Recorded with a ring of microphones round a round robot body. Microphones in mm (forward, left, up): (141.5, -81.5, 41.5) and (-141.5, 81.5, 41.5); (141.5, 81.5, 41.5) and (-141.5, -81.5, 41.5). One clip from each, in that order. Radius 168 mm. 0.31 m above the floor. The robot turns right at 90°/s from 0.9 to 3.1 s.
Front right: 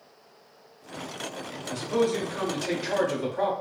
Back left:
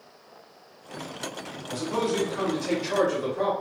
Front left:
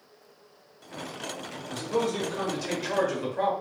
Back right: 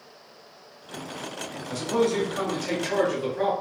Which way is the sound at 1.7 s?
130° right.